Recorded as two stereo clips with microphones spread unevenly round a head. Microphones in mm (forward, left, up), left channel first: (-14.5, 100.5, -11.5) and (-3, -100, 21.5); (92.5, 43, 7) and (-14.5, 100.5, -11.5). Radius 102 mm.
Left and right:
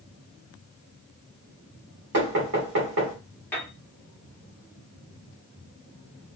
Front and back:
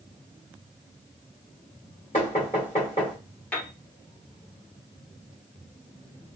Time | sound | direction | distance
2.1 | knocking | 95° right | 1.8 m
3.5 | a piano | straight ahead | 1.1 m